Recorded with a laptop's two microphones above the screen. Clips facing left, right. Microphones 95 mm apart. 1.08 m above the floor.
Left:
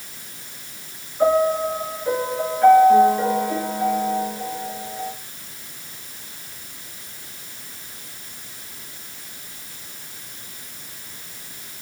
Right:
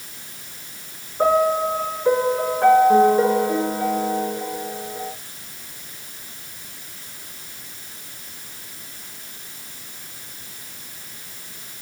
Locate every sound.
1.2 s a piano: 35° right (ahead or behind), 6 m